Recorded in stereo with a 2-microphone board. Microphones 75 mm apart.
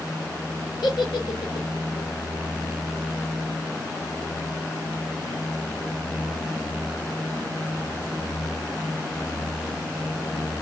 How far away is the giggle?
About 2.5 m.